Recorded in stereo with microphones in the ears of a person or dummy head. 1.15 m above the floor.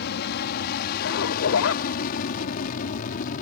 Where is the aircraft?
55° left (ahead or behind); by 3.4 s 45° left (ahead or behind).